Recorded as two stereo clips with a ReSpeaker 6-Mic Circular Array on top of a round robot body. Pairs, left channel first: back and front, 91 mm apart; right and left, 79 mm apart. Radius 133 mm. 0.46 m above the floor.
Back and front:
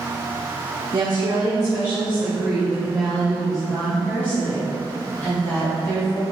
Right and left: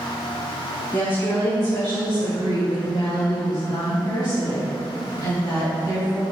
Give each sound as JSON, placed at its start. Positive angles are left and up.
{"t": 0.9, "sound": "a woman speaking", "azimuth_deg": -40, "distance_m": 2.5}